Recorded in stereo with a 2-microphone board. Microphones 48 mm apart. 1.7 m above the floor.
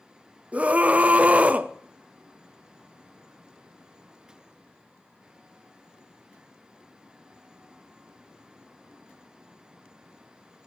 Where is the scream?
30° right (ahead or behind), 0.5 m.